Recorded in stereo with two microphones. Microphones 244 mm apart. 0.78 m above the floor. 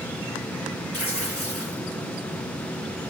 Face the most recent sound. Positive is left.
turn(degrees=70)  # may be behind; listen again after turning